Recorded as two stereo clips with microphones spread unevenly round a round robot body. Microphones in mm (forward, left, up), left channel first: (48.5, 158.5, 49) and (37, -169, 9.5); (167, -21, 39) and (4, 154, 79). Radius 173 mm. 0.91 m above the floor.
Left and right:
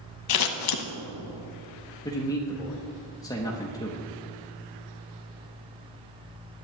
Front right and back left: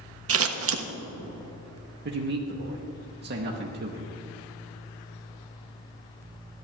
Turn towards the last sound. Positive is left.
turn(degrees=170)